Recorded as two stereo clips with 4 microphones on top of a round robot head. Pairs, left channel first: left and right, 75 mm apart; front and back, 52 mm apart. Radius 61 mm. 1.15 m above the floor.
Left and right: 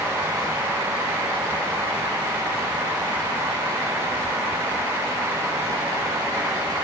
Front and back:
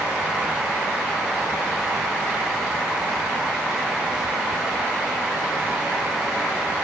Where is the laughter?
I don't hear laughter.